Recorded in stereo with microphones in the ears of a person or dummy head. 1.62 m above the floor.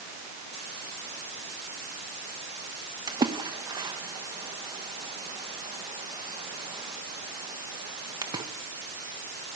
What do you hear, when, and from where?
3.1 s a splash: 25° right (ahead or behind), 2 m